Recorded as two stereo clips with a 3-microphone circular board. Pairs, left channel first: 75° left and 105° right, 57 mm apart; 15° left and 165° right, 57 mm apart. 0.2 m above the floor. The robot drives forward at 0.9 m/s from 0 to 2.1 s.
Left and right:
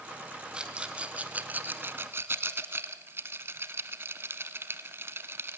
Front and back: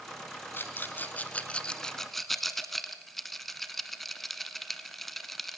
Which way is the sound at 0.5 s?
30° right.